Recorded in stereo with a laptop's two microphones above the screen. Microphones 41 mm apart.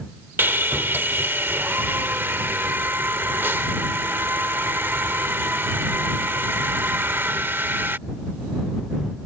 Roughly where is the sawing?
Right.